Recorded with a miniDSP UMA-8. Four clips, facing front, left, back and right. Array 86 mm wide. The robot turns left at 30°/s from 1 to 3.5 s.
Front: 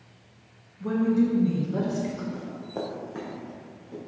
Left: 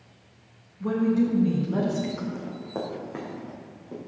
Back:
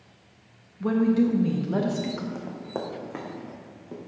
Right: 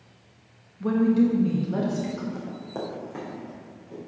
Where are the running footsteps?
Straight behind, 2.5 m; by 4.0 s 150° left, 4.5 m.